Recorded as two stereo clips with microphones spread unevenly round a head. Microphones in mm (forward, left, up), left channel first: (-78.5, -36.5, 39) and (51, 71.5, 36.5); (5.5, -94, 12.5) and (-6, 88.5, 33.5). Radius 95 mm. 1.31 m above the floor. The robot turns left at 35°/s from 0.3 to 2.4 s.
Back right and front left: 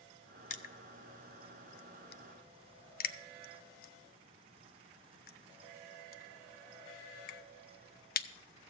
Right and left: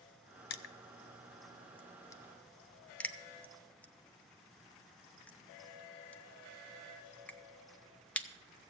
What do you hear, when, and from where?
0.5 s crushing: 100° right, 0.7 m; by 8.3 s 165° right, 0.7 m